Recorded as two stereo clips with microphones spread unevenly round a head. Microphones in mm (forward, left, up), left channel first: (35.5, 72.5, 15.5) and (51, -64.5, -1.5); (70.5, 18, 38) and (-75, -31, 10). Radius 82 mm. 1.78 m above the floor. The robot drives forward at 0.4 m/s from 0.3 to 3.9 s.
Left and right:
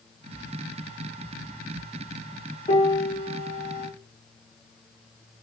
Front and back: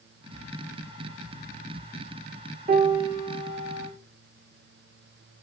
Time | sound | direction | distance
2.7 | a piano | 150° left | 0.8 m